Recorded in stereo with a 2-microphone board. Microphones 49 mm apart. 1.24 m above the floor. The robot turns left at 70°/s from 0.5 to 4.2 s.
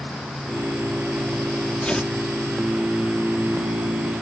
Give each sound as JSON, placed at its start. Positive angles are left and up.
{"t": 1.8, "sound": "tearing paper", "side_deg": 25}